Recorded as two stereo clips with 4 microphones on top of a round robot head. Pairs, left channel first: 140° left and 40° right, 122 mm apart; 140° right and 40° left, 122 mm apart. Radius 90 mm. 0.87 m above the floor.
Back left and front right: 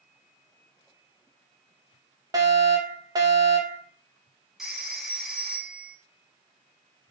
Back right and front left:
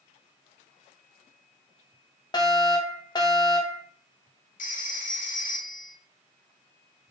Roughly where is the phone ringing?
Behind right.